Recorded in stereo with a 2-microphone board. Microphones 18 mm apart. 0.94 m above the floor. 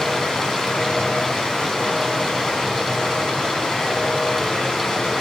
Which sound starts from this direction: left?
Running water, at 0.0 s.